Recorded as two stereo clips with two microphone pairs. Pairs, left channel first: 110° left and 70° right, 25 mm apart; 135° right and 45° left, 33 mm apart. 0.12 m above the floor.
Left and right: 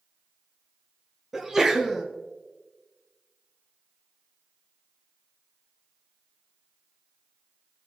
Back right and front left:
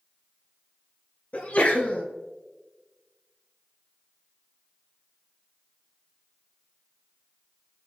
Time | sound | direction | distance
1.3 | a sneeze | 135° right | 2 m